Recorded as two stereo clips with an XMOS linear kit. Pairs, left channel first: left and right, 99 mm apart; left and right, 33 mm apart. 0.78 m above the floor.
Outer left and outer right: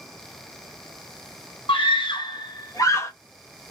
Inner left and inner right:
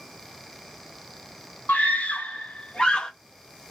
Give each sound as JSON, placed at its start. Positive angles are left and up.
{"t": 1.7, "sound": "a scream", "side_deg": 55, "distance_m": 1.4}